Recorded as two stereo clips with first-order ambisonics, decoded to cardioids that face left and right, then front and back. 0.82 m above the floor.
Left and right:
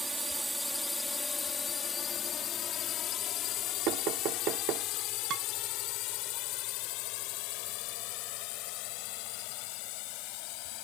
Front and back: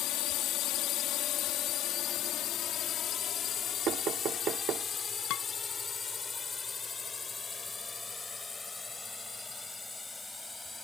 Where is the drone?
10° right; by 10.8 s 85° left.